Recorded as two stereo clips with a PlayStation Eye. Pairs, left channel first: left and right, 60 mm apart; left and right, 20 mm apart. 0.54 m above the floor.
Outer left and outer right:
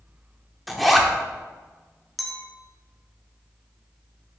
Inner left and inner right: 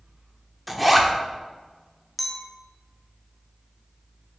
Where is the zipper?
Centre (ahead or behind), 0.8 m.